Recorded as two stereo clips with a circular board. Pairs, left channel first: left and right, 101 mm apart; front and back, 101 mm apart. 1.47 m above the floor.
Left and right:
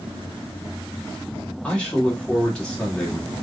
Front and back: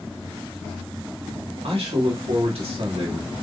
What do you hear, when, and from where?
1.6 s a man speaking: 170° left, 3.5 m